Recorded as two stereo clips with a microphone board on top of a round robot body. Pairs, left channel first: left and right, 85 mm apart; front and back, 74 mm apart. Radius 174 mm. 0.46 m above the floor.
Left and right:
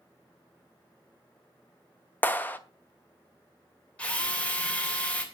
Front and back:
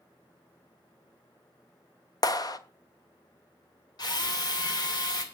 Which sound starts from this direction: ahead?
A drill, at 4.0 s.